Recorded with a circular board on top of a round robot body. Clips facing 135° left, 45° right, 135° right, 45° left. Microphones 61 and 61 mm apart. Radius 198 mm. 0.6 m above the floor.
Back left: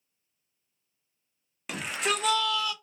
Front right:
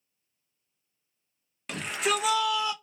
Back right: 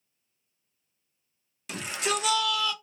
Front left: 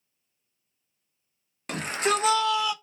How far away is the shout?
About 1.5 m.